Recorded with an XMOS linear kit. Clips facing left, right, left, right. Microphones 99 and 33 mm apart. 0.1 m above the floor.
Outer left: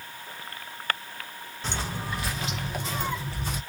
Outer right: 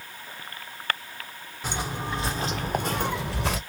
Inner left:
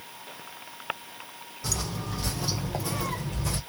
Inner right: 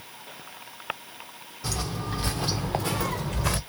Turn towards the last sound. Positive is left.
turn(degrees=-85)